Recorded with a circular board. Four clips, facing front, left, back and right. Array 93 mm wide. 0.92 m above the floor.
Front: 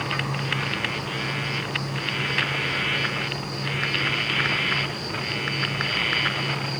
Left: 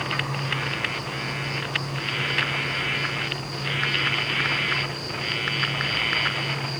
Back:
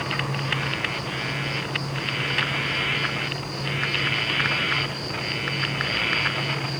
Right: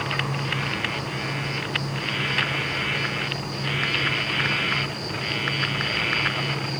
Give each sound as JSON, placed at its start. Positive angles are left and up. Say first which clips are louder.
{"t": 0.0, "sound": "an insect", "louder": "right 1 dB, even", "azimuth_deg": -30, "distance_m": 9.5}